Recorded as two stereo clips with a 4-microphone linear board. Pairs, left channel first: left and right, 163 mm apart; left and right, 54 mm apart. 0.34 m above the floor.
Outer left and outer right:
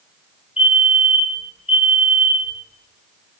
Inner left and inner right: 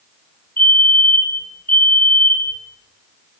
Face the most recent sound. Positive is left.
turn(degrees=40)  # may be behind; listen again after turning